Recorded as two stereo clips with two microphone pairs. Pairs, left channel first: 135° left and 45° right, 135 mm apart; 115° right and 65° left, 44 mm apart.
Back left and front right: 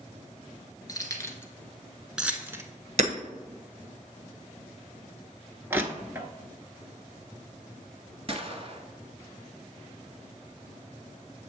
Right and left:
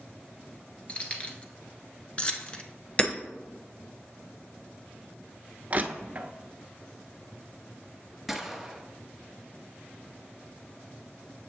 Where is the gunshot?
20° right, 1.0 m.